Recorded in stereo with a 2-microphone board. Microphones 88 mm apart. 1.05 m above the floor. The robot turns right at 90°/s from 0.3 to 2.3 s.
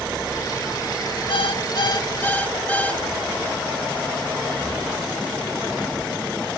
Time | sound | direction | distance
1.3 | an alarm clock | 70° left | 1.2 m